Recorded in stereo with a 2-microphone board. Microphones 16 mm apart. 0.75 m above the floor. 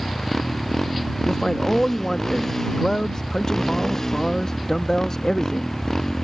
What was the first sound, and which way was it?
A motorcycle, 30° left (ahead or behind).